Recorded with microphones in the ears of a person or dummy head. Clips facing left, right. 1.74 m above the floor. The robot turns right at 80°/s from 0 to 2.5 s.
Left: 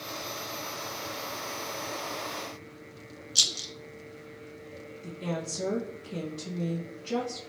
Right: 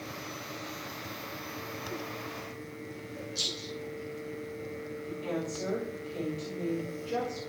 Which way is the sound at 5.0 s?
75° left (ahead or behind).